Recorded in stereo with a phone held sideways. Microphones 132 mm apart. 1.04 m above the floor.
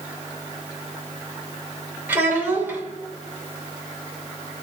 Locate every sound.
2.1 s a child speaking: 15° right (ahead or behind), 2 m